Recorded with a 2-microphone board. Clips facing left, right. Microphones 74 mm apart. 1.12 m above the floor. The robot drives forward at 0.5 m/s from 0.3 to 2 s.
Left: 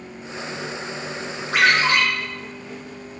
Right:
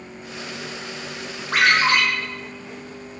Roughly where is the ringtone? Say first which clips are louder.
Even; right.